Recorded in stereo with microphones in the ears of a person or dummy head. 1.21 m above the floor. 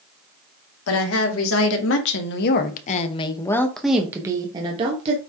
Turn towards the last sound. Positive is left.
turn(degrees=-35)  # may be behind; listen again after turning